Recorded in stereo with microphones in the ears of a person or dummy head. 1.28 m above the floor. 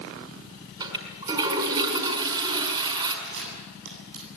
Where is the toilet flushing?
25° right (ahead or behind), 5.5 m.